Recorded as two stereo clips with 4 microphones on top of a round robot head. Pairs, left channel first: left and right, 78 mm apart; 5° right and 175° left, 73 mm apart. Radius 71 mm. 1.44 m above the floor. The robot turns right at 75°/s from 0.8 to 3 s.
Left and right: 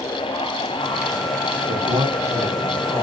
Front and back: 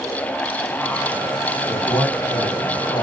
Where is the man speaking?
80° right, 3 m; by 3.0 s 20° left, 3 m.